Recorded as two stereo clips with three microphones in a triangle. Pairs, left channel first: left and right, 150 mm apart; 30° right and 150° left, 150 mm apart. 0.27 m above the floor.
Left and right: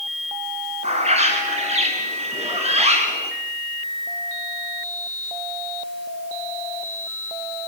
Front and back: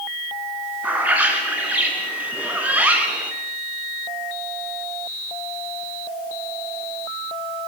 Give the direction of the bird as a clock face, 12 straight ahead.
4 o'clock.